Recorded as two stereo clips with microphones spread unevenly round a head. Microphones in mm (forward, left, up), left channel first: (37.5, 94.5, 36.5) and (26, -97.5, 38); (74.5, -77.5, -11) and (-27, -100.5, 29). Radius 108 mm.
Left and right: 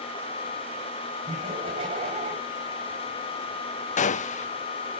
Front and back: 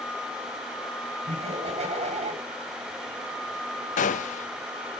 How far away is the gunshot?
About 0.6 m.